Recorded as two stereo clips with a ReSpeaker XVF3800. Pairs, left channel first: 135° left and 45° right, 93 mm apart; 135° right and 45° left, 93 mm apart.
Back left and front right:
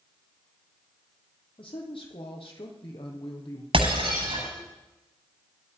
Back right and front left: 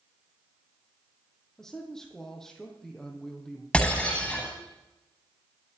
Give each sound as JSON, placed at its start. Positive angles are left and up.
{"t": 1.6, "sound": "a man speaking", "azimuth_deg": 140, "distance_m": 4.0}
{"t": 3.7, "sound": "breaking glass", "azimuth_deg": -55, "distance_m": 9.0}